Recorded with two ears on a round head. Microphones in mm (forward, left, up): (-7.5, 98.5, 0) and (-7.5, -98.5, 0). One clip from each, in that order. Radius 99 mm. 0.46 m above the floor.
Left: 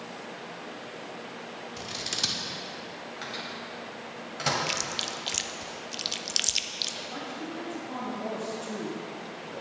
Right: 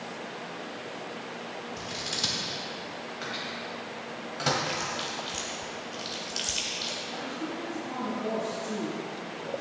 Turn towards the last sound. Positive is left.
turn(degrees=55)  # may be behind; listen again after turning